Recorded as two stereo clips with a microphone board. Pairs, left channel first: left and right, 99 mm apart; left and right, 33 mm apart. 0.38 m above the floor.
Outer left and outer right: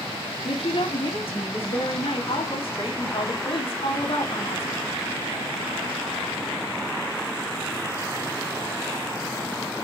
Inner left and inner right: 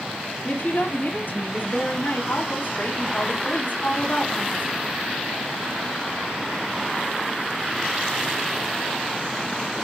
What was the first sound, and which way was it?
A woman speaking, 65° left (ahead or behind).